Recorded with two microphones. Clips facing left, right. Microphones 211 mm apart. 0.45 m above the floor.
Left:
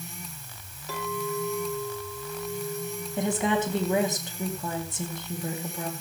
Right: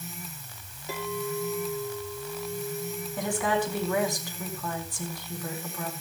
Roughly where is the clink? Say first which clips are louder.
Even; centre.